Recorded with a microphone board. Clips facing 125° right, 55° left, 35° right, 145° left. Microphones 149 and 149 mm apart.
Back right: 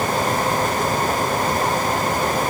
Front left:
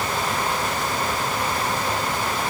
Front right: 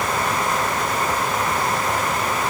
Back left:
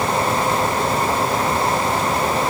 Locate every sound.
Only background noise.